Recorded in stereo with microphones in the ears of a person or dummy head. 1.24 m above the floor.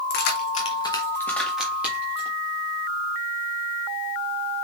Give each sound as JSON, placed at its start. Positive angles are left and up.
{"t": 0.1, "sound": "keys jangling", "side_deg": 65, "distance_m": 0.9}